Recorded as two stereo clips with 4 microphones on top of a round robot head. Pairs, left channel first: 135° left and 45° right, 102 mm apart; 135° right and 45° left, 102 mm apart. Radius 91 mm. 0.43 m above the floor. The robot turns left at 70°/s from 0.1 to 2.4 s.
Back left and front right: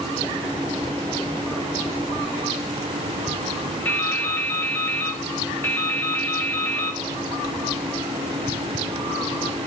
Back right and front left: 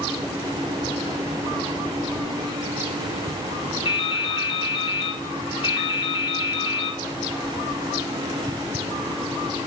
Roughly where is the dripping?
Behind right.